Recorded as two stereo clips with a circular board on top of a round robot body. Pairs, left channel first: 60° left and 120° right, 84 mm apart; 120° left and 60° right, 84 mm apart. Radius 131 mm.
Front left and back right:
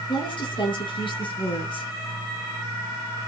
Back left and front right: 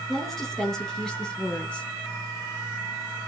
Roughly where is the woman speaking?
Ahead left.